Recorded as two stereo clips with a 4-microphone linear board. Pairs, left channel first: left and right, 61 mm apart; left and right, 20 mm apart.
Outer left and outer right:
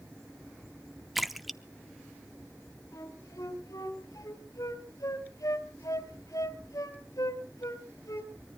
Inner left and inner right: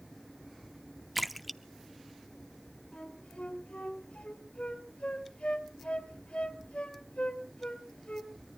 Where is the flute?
75° left (ahead or behind), 3.5 m.